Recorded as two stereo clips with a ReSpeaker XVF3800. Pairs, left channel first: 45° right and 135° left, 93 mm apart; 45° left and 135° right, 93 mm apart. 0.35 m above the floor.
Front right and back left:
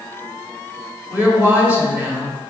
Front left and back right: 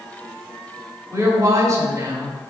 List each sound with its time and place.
1.1 s a woman speaking: 165° right, 1.7 m